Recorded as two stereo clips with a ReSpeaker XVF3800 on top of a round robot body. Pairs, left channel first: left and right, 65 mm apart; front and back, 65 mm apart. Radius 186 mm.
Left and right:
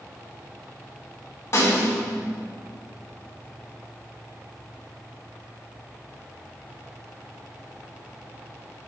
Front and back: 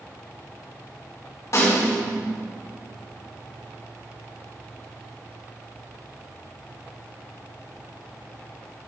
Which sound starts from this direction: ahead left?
A snare drum, at 1.5 s.